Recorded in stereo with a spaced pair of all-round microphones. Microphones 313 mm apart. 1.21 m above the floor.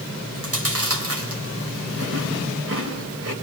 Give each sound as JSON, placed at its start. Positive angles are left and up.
{"t": 0.3, "sound": "chewing", "side_deg": -50, "distance_m": 4.0}